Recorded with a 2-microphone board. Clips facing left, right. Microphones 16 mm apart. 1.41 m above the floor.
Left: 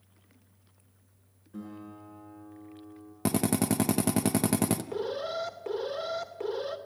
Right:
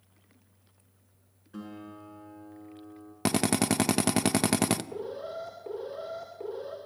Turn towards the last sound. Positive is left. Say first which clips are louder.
# left 4 dB
turn(degrees=75)  # may be behind; listen again after turning